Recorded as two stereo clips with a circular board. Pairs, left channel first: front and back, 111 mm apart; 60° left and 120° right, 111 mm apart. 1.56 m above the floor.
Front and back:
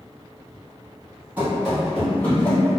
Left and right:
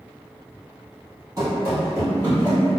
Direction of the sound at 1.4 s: 120° right.